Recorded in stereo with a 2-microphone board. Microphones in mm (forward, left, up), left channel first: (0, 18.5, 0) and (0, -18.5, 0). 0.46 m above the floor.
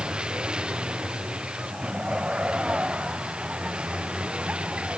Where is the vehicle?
25° right (ahead or behind).